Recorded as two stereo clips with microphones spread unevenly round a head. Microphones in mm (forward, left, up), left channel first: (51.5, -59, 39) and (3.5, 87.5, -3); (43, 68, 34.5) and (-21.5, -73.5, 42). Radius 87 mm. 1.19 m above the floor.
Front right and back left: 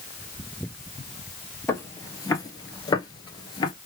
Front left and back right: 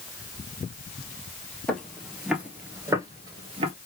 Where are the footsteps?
20° right, 1.6 m; by 3.7 s 80° right, 1.5 m.